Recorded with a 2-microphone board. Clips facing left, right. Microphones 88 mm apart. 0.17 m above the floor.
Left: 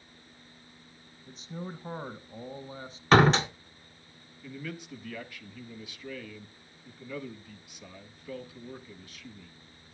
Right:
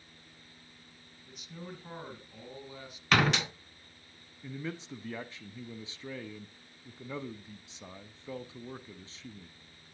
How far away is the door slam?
About 1.1 m.